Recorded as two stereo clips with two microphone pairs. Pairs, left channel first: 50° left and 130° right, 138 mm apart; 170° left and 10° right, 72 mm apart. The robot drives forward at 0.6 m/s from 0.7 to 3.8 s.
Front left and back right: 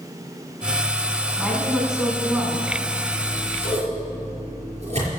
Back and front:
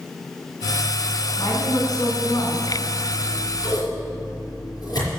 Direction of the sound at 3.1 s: 165° right.